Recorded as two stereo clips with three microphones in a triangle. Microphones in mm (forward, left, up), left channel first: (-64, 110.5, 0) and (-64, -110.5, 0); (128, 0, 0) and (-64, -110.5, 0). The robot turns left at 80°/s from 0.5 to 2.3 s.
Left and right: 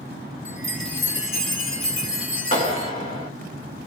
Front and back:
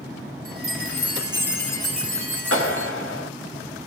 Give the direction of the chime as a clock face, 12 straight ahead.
5 o'clock.